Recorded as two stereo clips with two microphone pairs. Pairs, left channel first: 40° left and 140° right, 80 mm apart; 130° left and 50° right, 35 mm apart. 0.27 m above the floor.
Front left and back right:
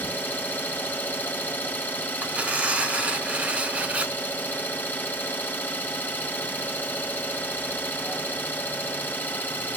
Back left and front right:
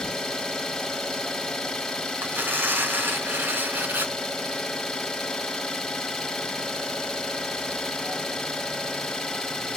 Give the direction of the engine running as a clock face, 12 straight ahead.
9 o'clock.